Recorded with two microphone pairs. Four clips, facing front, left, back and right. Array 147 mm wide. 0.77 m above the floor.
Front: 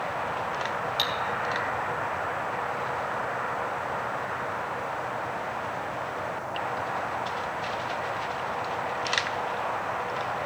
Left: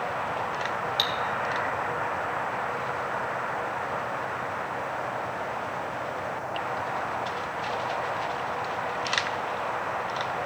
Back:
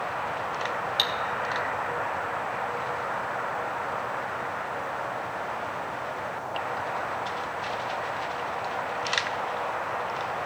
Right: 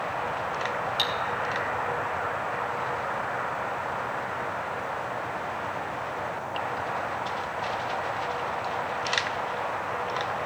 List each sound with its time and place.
1.0 s cutlery clinking: 140° left, 0.9 m